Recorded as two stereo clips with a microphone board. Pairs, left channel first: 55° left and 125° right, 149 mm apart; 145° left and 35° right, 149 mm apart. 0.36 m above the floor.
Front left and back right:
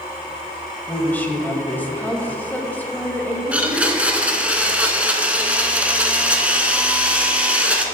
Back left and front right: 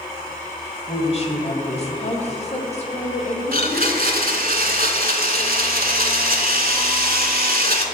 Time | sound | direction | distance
0.9 | a woman speaking | 130° left | 1.2 m
3.5 | a blender | 45° right | 0.9 m